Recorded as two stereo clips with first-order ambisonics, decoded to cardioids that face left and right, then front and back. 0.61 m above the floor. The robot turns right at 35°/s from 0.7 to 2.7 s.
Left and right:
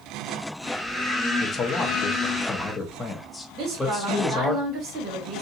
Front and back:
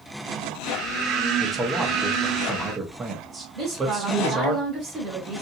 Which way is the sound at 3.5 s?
125° right.